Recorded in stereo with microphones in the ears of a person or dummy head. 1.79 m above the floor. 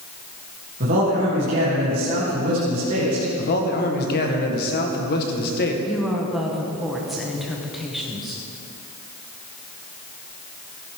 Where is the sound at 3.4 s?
50° left (ahead or behind), 1.5 m.